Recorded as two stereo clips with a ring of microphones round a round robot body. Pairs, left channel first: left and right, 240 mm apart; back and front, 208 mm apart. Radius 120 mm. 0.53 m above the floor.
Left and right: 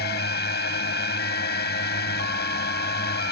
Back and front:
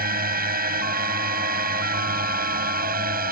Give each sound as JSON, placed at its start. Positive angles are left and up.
{"t": 0.0, "sound": "a drone", "azimuth_deg": 40}